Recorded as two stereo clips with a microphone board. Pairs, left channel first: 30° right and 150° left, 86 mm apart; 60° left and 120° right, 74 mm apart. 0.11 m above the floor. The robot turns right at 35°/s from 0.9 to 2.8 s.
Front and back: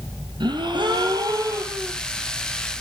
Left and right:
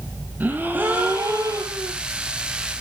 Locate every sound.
0.4 s a gasp: 175° left, 2.5 m; by 1.9 s 150° right, 2.5 m